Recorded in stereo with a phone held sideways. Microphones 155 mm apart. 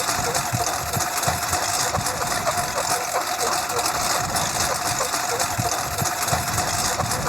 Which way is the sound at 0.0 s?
Centre (ahead or behind).